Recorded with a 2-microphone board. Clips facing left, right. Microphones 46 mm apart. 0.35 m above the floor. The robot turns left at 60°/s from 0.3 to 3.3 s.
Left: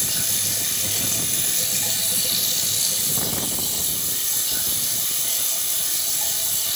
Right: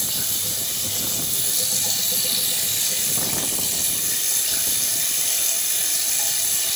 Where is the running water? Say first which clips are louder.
Left 1 dB; 120° left, 2.5 m; by 6.8 s 60° right, 2.5 m.